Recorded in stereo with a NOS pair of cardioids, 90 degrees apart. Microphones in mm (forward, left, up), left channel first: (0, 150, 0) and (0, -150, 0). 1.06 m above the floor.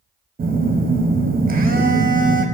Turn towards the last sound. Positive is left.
turn(degrees=-30)